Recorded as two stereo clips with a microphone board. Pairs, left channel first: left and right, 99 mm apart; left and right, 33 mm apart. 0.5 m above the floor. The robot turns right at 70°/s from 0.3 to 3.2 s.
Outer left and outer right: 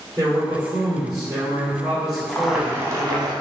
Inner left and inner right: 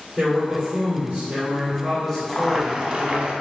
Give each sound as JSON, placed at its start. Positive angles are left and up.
{"t": 0.2, "sound": "a man speaking", "azimuth_deg": -135, "distance_m": 1.4}
{"t": 2.3, "sound": "boiling", "azimuth_deg": 170, "distance_m": 0.6}